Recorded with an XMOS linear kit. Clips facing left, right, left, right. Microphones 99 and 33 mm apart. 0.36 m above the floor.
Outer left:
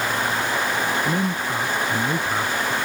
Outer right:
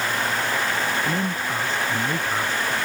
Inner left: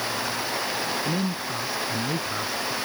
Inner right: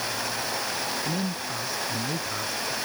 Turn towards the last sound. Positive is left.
turn(degrees=10)  # may be behind; listen again after turning